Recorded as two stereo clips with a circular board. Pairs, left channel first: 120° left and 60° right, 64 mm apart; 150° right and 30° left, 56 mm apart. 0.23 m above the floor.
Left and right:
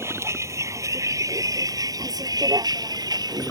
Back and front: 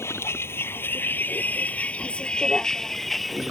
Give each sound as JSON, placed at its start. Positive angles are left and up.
{"t": 0.0, "sound": "a vehicle", "azimuth_deg": -105}